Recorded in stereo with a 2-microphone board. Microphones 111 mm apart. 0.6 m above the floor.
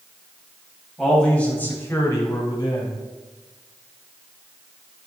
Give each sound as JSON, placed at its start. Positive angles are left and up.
{"t": 1.0, "sound": "a man speaking", "side_deg": 5, "distance_m": 3.5}